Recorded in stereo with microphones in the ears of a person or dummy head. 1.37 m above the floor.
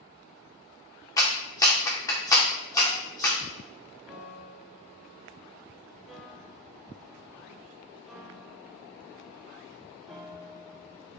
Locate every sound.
1.2 s a clap: 20° left (ahead or behind), 1.0 m
4.1 s a piano: 5° left (ahead or behind), 0.9 m